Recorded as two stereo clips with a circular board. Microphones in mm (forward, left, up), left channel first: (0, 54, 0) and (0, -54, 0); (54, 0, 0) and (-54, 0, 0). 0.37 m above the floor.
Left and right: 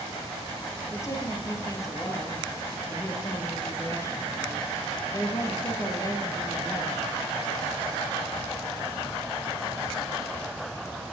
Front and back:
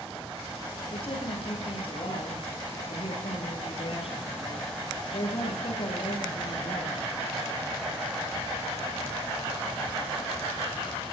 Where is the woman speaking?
30° left, 9.5 m.